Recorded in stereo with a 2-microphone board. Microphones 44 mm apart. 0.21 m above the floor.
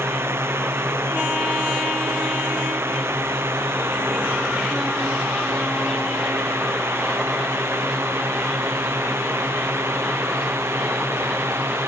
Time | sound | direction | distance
0.0 | a drone | 80° right | ?